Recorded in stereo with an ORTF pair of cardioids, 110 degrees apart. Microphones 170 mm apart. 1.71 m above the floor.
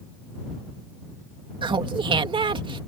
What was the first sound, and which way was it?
Laughter, 30° right.